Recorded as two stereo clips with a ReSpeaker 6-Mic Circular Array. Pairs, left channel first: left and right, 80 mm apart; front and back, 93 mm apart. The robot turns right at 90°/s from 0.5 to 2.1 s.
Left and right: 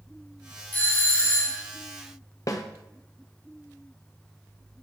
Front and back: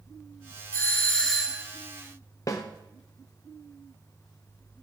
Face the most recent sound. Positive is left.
turn(degrees=50)